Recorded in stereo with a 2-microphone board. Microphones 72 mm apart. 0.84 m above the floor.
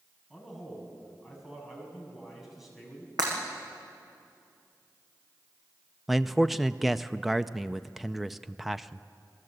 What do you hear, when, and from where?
0.3 s a man speaking: centre (ahead or behind), 6.5 m
3.2 s breaking glass: 65° right (ahead or behind), 7 m
6.1 s a man speaking: 5° right (ahead or behind), 0.5 m